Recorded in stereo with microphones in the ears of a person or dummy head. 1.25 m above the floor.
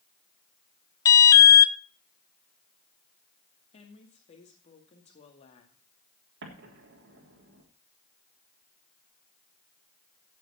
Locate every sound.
1.1 s an alarm: 15° left (ahead or behind), 0.6 m
3.7 s a woman speaking: 35° left (ahead or behind), 2.5 m
6.4 s an explosion: 60° right (ahead or behind), 3.5 m